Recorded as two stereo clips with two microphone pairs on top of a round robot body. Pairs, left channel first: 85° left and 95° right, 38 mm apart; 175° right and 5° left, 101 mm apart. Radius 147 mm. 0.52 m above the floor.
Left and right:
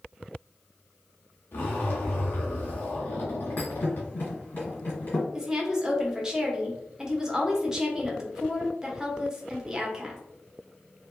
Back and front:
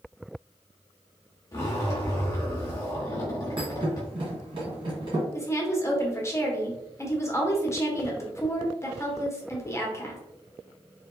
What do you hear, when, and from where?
1.5 s a zipper: 125° left, 0.9 m
3.6 s a thud: 40° left, 1.6 m
5.3 s a woman speaking: 155° right, 1.1 m